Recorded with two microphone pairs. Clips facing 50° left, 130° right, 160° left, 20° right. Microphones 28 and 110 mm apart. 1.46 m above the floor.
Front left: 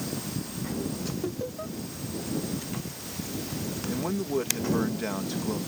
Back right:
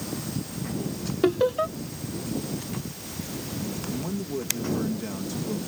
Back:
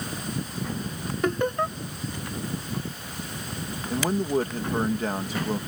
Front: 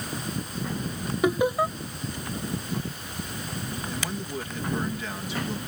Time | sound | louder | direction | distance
1.2 | laughter | back right 11 dB, front 2 dB | 105° right | ?
3.9 | a man speaking | front left 5 dB, back 13 dB | 110° left | ?